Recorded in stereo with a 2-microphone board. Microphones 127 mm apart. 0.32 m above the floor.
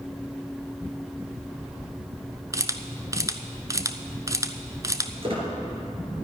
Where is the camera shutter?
25° right (ahead or behind), 0.7 m.